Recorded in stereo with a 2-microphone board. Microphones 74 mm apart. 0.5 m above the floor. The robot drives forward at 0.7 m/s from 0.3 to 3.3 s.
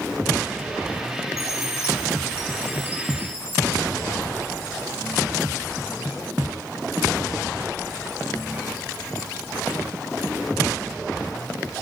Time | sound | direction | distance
1.4 | a chime | 40° left (ahead or behind) | 2 m